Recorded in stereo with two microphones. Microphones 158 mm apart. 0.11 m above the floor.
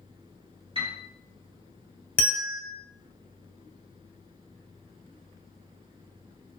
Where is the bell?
10° left (ahead or behind), 0.9 m.